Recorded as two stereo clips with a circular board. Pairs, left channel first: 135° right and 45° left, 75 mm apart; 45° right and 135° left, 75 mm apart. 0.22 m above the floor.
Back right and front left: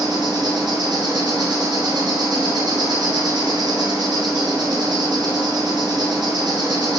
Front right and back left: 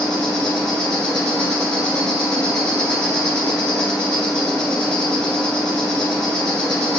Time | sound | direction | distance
0.0 | an insect | 35° left | 1.2 m